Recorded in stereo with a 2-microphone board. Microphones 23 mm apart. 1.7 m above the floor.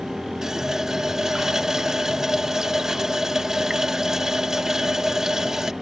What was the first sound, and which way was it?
A running tap, 25° right (ahead or behind).